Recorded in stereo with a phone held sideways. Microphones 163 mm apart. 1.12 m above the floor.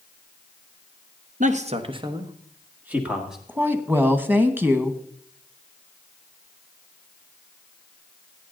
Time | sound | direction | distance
1.4 | a man speaking | 50° right (ahead or behind) | 1.1 m
3.5 | a woman speaking | 10° right (ahead or behind) | 1.1 m